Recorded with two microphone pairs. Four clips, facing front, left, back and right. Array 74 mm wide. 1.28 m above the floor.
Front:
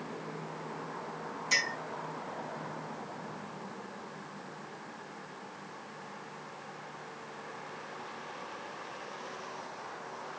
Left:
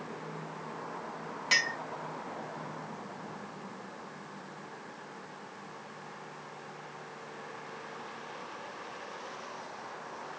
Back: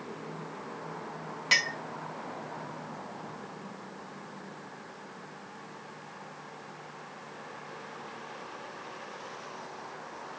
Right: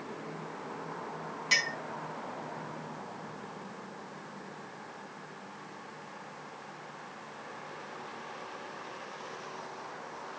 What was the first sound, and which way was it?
A clink, 155° left.